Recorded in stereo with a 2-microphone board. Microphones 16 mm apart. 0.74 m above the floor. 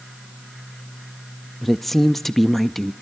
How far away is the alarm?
No alarm in this recording.